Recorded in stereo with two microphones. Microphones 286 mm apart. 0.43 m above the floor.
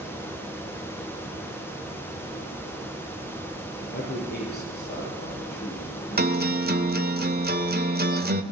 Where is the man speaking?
35° left (ahead or behind), 9 m.